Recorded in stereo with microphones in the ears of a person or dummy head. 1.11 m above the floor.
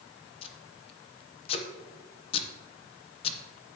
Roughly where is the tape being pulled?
Left.